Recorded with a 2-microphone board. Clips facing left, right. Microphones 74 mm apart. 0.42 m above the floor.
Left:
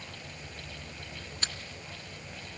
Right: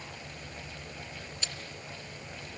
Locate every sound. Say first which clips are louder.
1.4 s chewing: left 4 dB; 55° left (ahead or behind), 2 m